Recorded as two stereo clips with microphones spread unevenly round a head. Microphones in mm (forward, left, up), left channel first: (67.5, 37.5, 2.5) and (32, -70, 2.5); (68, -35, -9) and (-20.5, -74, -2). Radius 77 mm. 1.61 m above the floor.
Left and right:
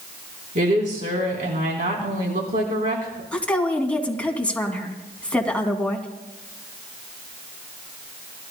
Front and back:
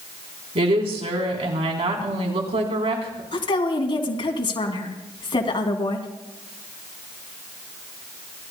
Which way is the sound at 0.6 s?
145° right.